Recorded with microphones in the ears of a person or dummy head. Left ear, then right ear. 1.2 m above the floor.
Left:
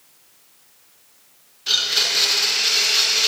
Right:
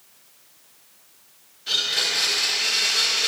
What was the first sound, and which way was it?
A blender, 20° left (ahead or behind).